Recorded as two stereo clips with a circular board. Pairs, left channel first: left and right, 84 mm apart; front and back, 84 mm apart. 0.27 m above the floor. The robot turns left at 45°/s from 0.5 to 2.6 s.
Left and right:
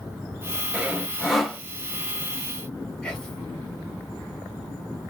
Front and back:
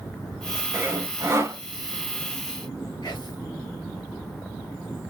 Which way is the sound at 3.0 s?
15° left.